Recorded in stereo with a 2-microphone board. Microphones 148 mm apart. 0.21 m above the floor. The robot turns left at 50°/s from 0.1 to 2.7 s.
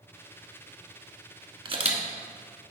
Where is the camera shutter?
35° right (ahead or behind), 1.1 m; by 2.0 s 50° right (ahead or behind), 1.1 m.